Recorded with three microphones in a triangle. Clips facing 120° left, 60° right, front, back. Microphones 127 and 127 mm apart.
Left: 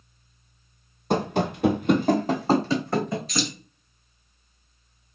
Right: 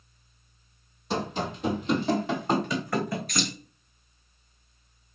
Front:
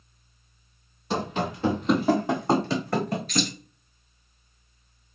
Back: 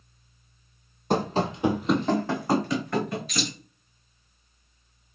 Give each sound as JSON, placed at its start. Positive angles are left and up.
{"t": 1.1, "sound": "running footsteps", "azimuth_deg": 150, "distance_m": 0.7}
{"t": 3.3, "sound": "keys jangling", "azimuth_deg": -100, "distance_m": 2.5}